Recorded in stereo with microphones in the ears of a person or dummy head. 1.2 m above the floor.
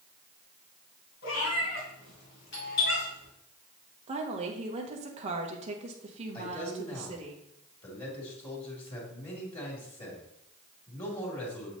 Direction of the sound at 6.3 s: 30° left (ahead or behind).